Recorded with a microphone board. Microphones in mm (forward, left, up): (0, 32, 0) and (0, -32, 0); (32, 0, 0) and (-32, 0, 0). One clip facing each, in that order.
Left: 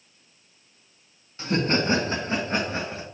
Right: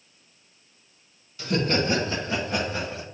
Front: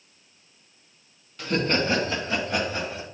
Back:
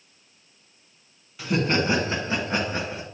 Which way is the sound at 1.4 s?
105° left.